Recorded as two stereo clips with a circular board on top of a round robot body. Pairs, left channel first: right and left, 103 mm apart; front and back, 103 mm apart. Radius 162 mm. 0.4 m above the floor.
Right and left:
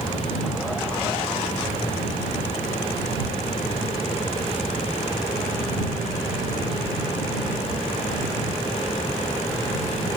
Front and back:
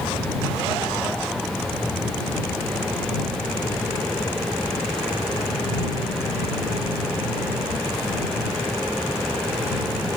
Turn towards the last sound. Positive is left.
No sound to turn to.